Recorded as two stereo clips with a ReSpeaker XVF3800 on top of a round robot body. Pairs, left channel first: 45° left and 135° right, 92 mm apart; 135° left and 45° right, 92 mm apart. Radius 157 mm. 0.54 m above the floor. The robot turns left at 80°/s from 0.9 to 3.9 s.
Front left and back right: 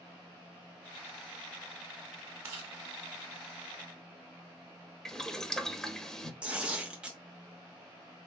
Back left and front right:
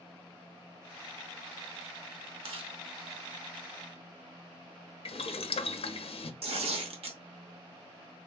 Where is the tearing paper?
55° right, 0.8 m.